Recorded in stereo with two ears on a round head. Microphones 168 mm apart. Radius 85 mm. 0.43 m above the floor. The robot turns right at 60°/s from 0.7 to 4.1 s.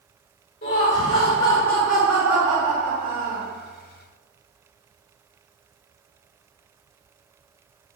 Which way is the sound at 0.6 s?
105° left.